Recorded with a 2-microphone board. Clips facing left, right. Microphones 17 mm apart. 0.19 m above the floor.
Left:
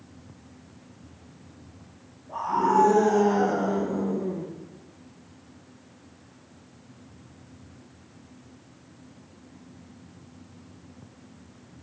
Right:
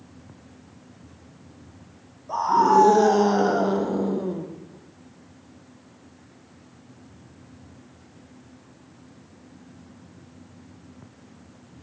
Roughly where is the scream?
Right.